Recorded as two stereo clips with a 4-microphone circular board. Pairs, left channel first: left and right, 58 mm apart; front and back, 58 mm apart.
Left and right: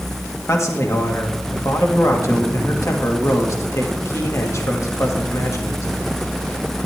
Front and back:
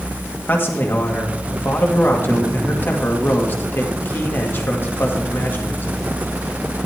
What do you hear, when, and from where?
0.5 s a man speaking: 55° left, 1.7 m